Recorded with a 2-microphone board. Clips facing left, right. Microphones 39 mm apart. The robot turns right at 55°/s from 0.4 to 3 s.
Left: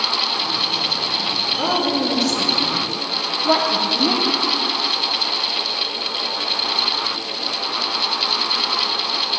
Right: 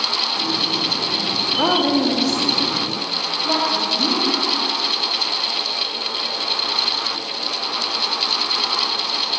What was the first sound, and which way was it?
A woman speaking, 45° right.